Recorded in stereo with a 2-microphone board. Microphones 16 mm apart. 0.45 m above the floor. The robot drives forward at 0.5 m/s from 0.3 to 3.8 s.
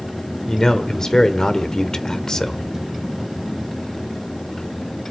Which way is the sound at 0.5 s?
40° left (ahead or behind).